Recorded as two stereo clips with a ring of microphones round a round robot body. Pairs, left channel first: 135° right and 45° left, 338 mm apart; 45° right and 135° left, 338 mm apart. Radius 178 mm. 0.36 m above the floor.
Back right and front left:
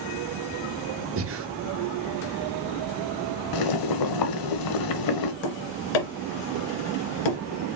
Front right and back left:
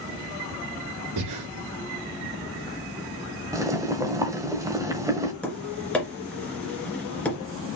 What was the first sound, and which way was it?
Breathing, 100° left.